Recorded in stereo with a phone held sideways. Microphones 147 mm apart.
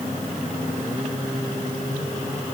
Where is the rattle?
I don't hear a rattle.